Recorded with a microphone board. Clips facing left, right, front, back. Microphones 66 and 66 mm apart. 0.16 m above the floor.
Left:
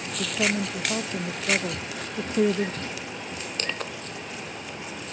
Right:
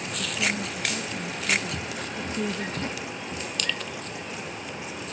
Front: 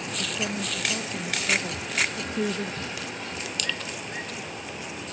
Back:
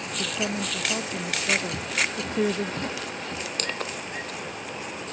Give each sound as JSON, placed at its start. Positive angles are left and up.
{"t": 0.2, "sound": "a woman speaking", "azimuth_deg": 110}
{"t": 1.7, "sound": "footsteps", "azimuth_deg": -155}
{"t": 3.6, "sound": "crushing", "azimuth_deg": 140}